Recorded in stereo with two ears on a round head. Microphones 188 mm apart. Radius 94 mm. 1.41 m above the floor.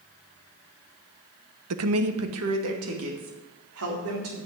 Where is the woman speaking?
75° right (ahead or behind), 1.0 m; by 4.4 s 70° right (ahead or behind), 4.5 m.